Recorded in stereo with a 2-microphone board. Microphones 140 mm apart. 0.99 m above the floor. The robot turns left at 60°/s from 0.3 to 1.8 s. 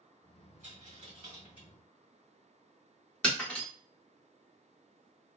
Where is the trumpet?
No trumpet in this recording.